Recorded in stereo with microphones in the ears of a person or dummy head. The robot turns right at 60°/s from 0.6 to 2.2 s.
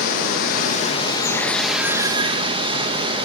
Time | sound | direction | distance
0.0 | running water | 115° left | 1.4 m